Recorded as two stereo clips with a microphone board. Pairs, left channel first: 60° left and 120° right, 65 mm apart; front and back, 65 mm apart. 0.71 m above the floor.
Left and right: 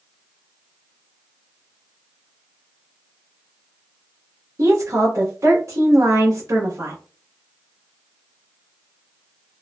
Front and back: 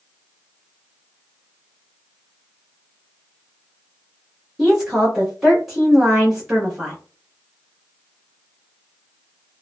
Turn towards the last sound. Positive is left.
turn(degrees=-95)